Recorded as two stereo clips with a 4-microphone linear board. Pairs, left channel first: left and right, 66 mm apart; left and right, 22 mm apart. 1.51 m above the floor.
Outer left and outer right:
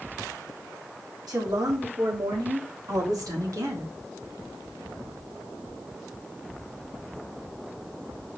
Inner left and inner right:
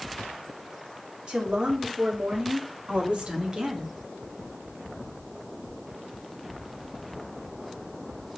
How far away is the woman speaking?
About 4 m.